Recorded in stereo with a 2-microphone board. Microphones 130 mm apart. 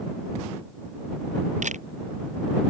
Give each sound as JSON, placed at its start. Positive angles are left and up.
{"t": 1.6, "sound": "a camera shutter", "side_deg": -70}